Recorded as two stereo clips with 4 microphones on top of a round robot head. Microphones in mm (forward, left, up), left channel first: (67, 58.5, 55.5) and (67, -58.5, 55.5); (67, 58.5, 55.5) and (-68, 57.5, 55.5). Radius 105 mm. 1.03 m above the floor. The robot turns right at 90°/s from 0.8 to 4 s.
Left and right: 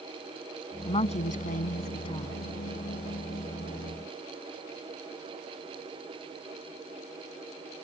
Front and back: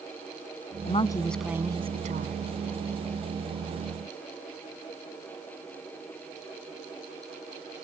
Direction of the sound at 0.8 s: 40° left.